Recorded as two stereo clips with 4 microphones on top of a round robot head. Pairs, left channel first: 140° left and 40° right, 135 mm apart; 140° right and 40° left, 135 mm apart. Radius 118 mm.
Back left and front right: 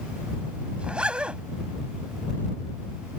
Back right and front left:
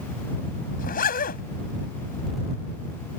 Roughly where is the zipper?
Behind right.